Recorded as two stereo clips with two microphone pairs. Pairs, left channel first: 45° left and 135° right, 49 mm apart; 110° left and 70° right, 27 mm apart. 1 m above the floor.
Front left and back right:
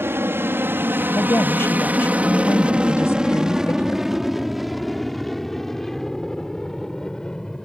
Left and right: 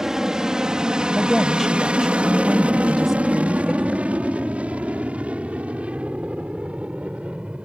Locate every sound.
0.0 s an aircraft: 135° right; by 7.7 s 30° right
1.2 s a woman speaking: 15° left